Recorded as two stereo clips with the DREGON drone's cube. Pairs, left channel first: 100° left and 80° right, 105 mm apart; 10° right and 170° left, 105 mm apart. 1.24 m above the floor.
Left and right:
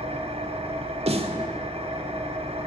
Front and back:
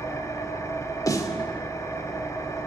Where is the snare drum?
65° right, 1.8 m.